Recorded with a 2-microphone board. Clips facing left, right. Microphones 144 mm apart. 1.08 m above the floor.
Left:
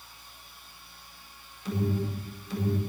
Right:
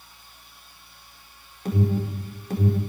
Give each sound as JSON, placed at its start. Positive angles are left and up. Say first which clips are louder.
{"t": 1.6, "sound": "an alarm", "louder": "right 4 dB", "side_deg": -55, "distance_m": 4.5}